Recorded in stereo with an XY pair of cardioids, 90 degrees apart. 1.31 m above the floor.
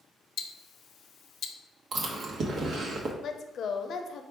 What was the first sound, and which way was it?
Ticking, 65° left.